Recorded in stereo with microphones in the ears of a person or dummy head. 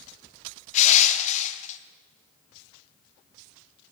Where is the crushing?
45° left (ahead or behind), 0.8 m.